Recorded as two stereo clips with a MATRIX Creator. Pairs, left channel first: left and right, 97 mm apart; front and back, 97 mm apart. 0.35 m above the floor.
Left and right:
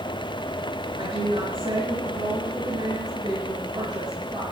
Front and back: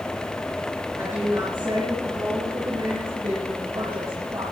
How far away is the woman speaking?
About 4.5 m.